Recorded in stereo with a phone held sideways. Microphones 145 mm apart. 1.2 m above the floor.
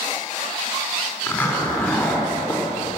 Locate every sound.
1.3 s a zipper: 15° left (ahead or behind), 3.5 m